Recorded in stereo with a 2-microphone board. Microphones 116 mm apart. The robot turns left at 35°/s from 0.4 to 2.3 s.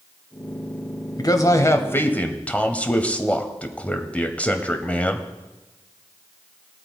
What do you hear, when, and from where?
1.2 s a man speaking: 55° left, 1.1 m; by 5.3 s 20° left, 1.1 m